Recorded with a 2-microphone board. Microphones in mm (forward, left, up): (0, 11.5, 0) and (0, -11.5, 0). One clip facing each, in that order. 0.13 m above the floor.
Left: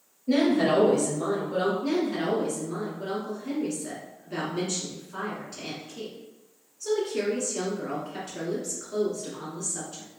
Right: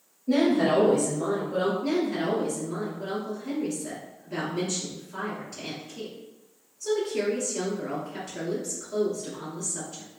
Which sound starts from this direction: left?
A woman speaking, at 0.3 s.